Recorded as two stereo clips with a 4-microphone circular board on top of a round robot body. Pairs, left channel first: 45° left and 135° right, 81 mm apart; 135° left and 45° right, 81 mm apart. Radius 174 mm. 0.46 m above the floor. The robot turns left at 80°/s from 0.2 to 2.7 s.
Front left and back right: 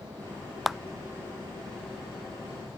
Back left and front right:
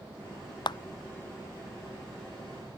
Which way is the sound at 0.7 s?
140° left.